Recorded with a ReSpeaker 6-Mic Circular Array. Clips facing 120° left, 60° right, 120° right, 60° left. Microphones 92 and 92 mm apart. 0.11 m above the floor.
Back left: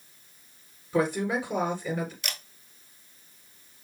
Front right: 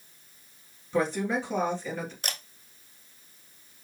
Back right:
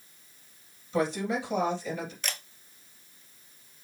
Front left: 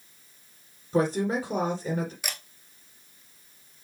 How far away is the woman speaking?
About 2 m.